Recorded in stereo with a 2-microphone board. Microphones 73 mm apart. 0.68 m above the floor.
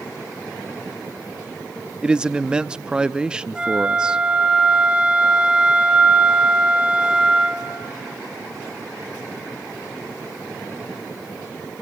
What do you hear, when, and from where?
2.0 s a man speaking: 10° right (ahead or behind), 0.5 m
3.5 s a flute: 15° right (ahead or behind), 2 m